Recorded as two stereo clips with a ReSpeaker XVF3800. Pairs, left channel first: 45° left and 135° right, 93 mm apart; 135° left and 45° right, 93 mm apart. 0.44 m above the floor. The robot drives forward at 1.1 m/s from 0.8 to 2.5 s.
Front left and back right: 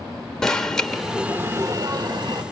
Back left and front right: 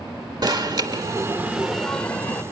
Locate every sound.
0.4 s an alarm: 35° right, 1.1 m; by 2.4 s 160° right, 1.4 m